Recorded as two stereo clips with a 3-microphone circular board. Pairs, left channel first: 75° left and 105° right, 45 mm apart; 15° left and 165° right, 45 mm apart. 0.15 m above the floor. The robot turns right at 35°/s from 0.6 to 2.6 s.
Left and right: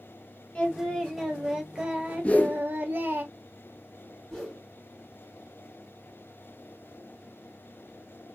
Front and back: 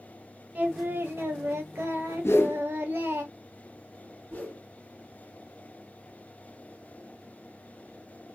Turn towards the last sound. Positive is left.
turn(degrees=0)